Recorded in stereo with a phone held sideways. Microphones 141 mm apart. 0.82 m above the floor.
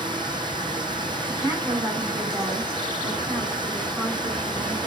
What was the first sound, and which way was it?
Running water, 35° right (ahead or behind).